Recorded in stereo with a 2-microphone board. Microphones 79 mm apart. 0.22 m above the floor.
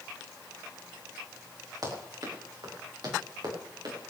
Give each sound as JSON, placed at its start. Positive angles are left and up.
{"t": 1.8, "sound": "running footsteps", "side_deg": -50, "distance_m": 6.5}